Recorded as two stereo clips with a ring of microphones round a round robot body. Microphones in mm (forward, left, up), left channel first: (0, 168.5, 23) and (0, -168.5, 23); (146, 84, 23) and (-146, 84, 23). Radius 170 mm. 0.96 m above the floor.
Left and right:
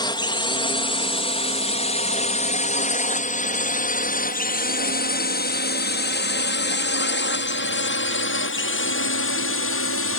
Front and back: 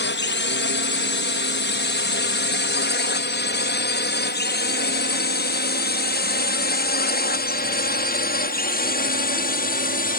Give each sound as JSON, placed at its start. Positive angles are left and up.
{"t": 0.0, "sound": "a drone", "azimuth_deg": 20}